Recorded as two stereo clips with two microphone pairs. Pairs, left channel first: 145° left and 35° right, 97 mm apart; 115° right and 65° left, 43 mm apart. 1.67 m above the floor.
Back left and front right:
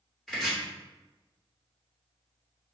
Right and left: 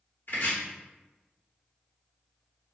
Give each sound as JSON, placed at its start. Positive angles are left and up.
{"t": 0.3, "sound": "chopping", "azimuth_deg": -130, "distance_m": 1.8}